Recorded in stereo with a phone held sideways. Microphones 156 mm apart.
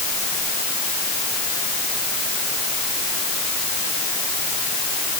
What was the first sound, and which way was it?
Only background noise.